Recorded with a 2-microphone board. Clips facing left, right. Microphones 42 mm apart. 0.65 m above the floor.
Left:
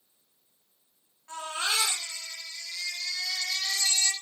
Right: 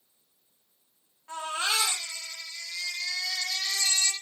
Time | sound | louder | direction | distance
1.3 | a baby crying | right 1 dB | 10° right (ahead or behind) | 10 m